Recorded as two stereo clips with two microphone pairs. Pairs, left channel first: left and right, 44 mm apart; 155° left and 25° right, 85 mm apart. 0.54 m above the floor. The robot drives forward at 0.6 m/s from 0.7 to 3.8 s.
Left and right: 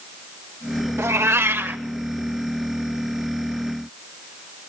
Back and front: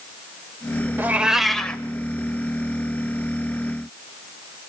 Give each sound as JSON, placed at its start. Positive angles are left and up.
{"t": 1.0, "sound": "a cat meowing", "azimuth_deg": -90, "distance_m": 0.6}